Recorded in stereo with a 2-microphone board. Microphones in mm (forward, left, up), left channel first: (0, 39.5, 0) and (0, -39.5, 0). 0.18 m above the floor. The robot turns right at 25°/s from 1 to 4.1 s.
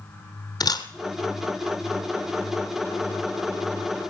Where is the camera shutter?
60° left (ahead or behind), 1.3 m.